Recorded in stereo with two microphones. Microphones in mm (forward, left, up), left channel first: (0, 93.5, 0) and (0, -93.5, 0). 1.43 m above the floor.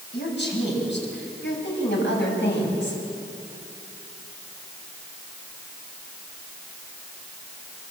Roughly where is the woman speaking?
Left.